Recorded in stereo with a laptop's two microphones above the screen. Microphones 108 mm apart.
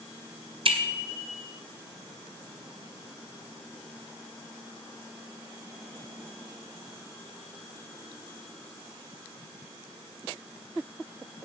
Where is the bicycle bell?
55° right (ahead or behind), 2.5 m.